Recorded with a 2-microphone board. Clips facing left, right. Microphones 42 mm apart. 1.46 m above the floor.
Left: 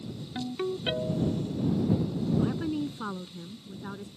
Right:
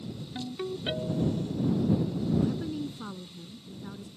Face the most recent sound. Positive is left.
turn(degrees=35)  # may be behind; listen again after turning